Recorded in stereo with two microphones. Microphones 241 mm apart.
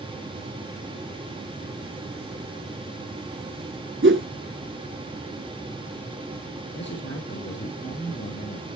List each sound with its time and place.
4.0 s a whoosh: 55° right (ahead or behind), 0.7 m
6.7 s a man speaking: 50° left (ahead or behind), 3.5 m